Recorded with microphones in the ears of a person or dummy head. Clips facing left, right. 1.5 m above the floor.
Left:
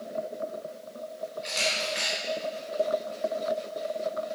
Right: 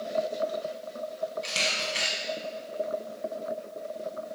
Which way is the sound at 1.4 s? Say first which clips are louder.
Left 2 dB; 40° right (ahead or behind).